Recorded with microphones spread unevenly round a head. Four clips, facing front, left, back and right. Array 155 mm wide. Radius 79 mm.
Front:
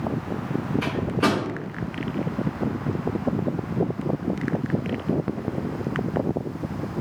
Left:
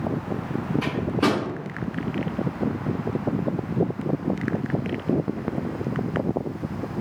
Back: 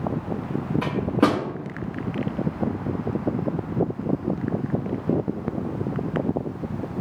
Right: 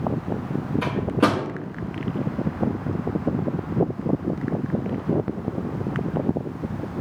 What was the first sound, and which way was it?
A microwave, 165° right.